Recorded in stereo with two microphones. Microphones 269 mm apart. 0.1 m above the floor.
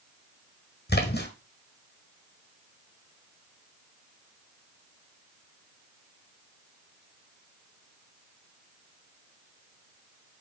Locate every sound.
0.9 s a splash: 40° left (ahead or behind), 1.4 m